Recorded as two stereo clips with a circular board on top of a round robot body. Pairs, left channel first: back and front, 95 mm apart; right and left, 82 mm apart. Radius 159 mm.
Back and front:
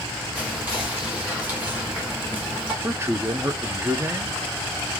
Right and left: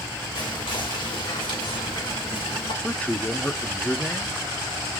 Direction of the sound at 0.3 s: 75° right.